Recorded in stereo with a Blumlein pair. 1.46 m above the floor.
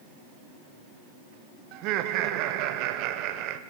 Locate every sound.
1.7 s laughter: 40° right, 0.6 m